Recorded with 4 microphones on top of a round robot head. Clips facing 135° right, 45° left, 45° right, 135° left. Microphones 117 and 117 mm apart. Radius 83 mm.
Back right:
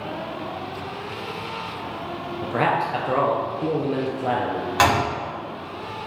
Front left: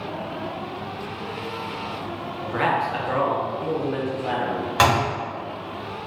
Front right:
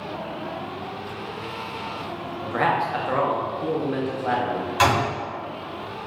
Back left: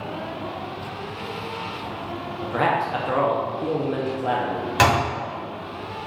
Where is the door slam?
130° left, 1.3 m.